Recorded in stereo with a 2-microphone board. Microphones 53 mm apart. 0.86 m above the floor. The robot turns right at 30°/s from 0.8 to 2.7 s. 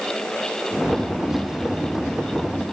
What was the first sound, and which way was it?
Only background noise.